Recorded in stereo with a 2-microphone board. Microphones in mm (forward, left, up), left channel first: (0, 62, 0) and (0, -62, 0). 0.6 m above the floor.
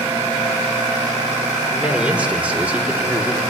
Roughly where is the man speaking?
Centre.